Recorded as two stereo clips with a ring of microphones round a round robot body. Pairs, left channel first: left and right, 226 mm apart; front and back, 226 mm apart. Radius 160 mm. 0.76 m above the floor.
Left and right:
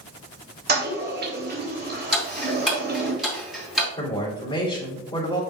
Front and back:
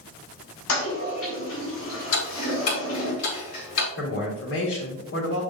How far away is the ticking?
About 4.5 m.